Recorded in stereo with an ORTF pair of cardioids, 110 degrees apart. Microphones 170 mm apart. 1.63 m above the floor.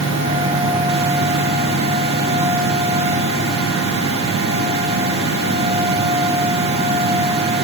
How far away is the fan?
About 2 m.